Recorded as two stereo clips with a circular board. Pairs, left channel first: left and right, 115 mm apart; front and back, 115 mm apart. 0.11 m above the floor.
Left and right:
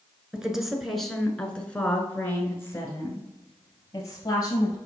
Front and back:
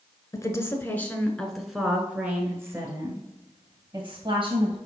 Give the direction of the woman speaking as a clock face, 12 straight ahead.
12 o'clock.